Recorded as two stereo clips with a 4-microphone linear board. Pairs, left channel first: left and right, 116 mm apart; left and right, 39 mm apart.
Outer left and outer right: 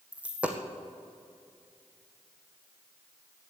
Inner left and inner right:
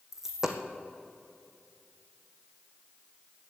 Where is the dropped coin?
10° right (ahead or behind), 1.7 m.